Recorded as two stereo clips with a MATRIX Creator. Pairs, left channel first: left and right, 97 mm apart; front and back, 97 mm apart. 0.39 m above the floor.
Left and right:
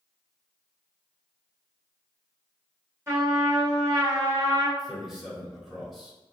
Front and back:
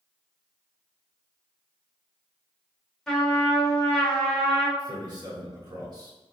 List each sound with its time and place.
3.1 s a trumpet: 80° right, 1.4 m
4.8 s a man speaking: 175° right, 1.5 m